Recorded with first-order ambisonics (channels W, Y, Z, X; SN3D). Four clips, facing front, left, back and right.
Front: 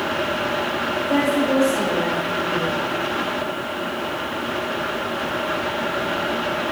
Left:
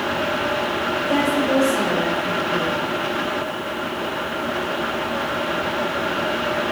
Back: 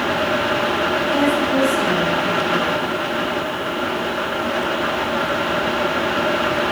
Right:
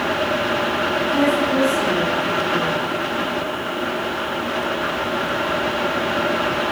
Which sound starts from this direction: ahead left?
A woman speaking, at 1.1 s.